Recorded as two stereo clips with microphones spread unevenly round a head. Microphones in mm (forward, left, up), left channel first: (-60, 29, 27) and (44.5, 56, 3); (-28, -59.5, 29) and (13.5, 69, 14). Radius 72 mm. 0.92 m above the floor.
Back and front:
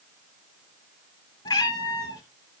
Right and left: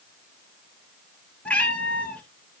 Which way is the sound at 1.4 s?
Straight behind.